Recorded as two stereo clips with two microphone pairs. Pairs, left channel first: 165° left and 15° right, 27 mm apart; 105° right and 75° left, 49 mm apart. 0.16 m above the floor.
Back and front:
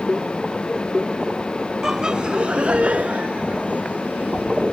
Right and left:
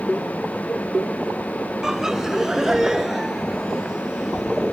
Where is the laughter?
10° left; by 4.7 s 5° right.